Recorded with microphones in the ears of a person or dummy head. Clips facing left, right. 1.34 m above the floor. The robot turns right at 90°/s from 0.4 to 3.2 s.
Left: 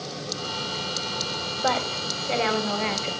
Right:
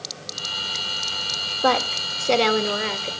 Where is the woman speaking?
115° right, 1.9 m; by 3.1 s 15° left, 1.9 m.